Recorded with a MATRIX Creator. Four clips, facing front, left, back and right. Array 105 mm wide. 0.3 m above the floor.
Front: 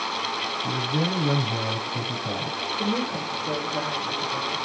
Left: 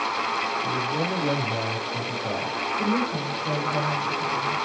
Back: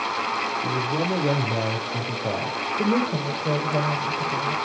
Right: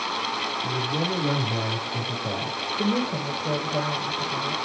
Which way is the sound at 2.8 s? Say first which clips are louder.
Right 1 dB, back 5 dB; 170° right.